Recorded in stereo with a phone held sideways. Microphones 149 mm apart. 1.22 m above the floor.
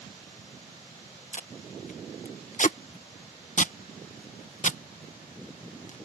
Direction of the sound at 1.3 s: 55° left (ahead or behind).